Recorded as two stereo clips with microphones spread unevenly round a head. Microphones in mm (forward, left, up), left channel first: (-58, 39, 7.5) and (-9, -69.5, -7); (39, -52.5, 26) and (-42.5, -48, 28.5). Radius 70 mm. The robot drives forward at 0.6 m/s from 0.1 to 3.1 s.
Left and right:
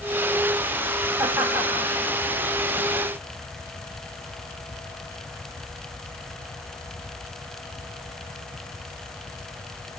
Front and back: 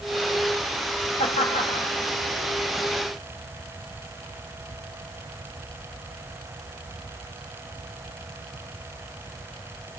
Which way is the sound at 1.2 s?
15° left.